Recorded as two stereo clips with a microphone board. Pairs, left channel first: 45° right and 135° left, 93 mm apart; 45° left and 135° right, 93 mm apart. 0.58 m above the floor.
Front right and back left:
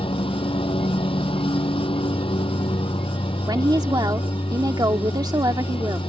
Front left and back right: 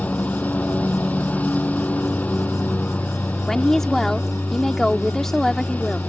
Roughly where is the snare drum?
I don't hear a snare drum.